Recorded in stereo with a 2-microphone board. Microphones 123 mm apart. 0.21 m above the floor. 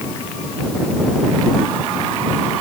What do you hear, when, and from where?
Only background noise.